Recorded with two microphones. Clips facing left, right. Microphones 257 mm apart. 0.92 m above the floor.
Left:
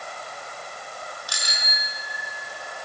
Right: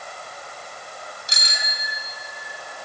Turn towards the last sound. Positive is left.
turn(degrees=-25)  # may be behind; listen again after turning